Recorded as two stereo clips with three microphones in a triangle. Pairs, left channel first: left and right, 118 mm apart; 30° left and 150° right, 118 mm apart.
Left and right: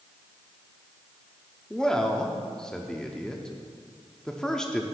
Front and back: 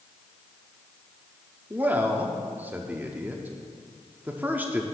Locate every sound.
1.7 s a man speaking: 165° left, 0.7 m